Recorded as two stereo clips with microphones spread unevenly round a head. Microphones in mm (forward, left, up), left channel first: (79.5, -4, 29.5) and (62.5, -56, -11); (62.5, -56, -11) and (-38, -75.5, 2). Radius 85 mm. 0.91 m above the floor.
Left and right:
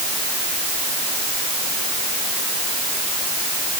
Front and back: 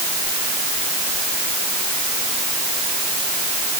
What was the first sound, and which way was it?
Only background noise.